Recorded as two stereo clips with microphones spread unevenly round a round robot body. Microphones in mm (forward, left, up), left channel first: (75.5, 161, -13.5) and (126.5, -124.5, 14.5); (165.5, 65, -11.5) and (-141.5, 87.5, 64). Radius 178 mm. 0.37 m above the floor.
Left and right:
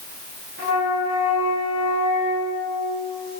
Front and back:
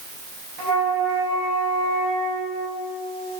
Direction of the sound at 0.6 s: 145° right.